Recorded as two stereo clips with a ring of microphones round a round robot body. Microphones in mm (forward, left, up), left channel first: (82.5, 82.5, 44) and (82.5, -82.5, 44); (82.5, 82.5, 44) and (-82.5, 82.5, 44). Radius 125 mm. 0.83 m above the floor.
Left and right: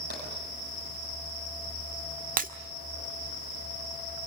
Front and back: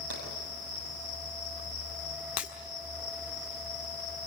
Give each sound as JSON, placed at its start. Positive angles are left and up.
{"t": 0.1, "sound": "tapping", "azimuth_deg": -140, "distance_m": 7.5}
{"t": 2.4, "sound": "breaking glass", "azimuth_deg": -55, "distance_m": 1.6}